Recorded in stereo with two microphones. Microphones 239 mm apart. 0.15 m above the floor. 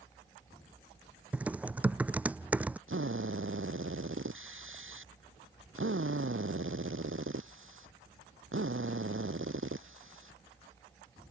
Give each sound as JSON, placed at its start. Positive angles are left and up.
{"t": 1.3, "sound": "typing on a keyboard", "side_deg": -5}
{"t": 2.9, "sound": "a drill", "side_deg": -60}